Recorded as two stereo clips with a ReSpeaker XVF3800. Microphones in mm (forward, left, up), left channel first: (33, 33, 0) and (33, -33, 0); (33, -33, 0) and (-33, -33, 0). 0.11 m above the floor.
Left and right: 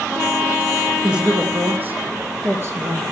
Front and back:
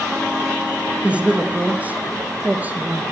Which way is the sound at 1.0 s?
145° right.